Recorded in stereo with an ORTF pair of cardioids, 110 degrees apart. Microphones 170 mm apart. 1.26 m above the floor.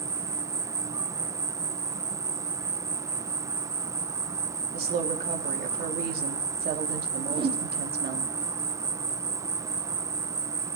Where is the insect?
20° right, 0.7 m.